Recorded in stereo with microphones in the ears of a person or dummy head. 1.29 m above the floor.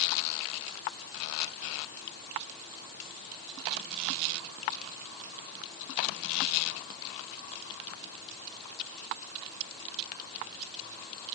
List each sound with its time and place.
Only background noise.